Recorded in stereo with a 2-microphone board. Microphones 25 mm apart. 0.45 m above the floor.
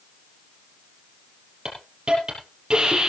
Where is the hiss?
40° right (ahead or behind), 5 m.